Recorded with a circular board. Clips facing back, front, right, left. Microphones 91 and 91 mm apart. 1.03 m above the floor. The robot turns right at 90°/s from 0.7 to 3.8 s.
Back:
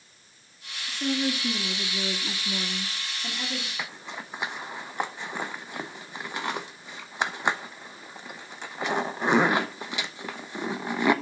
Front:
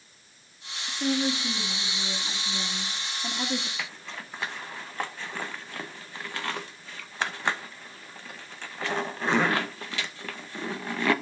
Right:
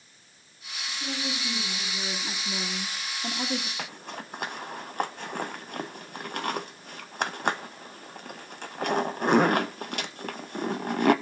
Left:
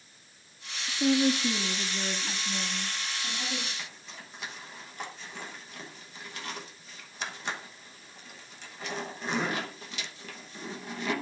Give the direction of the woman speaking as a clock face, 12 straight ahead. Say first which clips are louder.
Front 1 dB, left 10 dB; 10 o'clock.